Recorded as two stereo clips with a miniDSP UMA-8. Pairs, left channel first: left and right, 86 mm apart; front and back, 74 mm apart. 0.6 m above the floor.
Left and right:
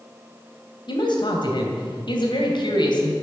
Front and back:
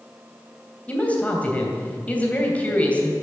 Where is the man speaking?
70° left, 2.5 m.